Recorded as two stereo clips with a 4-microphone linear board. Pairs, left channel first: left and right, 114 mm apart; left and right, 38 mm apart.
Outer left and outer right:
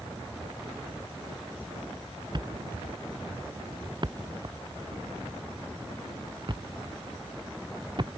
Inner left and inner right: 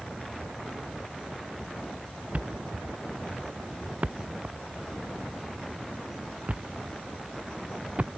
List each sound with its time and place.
2.3 s a thud: 45° right (ahead or behind)